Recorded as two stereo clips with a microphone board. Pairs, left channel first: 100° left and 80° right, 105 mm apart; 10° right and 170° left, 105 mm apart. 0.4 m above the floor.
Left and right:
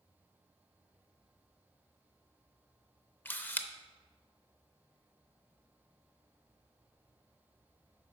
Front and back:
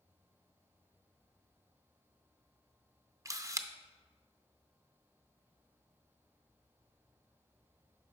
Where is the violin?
No violin in this recording.